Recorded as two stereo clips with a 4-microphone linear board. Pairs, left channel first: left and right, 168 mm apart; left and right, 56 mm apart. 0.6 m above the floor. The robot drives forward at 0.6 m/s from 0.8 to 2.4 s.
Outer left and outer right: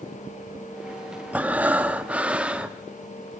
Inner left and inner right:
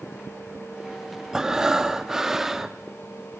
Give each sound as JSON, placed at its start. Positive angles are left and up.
{"t": 1.3, "sound": "breathing", "side_deg": -10, "distance_m": 0.7}